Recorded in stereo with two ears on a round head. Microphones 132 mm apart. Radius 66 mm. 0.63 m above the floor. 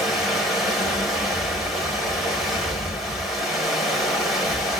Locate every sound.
0.0 s running water: centre (ahead or behind), 0.9 m